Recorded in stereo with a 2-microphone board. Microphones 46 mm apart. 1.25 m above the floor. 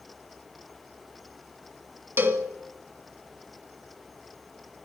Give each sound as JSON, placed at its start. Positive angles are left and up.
{"t": 2.2, "sound": "a cowbell", "side_deg": -55, "distance_m": 1.7}